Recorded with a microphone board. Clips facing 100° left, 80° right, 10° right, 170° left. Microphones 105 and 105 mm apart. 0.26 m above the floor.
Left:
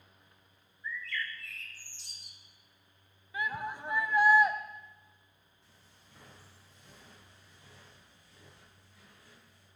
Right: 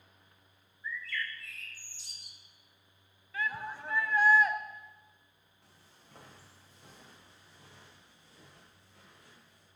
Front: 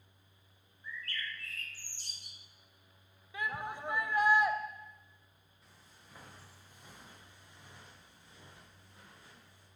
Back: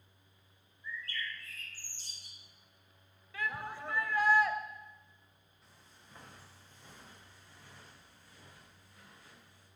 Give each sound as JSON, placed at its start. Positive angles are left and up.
{"t": 0.8, "sound": "a bird", "azimuth_deg": 10, "distance_m": 1.8}
{"t": 3.3, "sound": "a shout", "azimuth_deg": 45, "distance_m": 1.0}
{"t": 5.6, "sound": "footsteps", "azimuth_deg": -100, "distance_m": 6.5}